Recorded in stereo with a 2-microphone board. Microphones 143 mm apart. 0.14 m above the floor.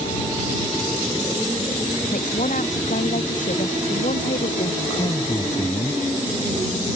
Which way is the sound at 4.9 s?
30° left (ahead or behind).